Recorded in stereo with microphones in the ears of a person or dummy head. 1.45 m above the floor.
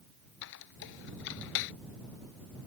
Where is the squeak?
65° left (ahead or behind).